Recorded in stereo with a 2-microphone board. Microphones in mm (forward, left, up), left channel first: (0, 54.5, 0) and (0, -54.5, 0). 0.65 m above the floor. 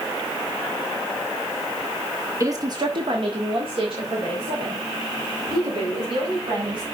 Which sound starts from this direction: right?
A woman speaking, at 2.4 s.